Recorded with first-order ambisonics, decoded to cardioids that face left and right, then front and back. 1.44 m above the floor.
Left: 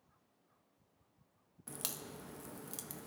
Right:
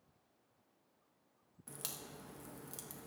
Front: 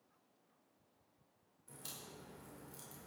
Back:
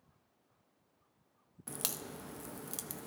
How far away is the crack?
About 0.6 m.